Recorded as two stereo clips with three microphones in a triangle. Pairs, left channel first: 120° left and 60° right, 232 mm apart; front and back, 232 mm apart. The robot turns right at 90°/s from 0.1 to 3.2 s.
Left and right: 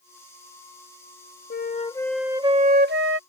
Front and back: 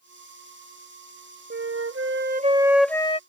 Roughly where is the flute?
Behind left.